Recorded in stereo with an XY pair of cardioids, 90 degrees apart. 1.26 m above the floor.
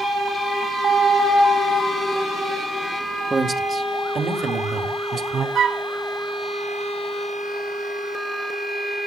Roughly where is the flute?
Ahead right.